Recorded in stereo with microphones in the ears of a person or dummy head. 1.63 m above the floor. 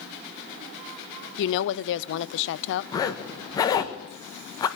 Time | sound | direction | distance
1.4 | a woman speaking | 70° left (ahead or behind) | 0.6 m
2.9 | a zipper | 20° left (ahead or behind) | 1.3 m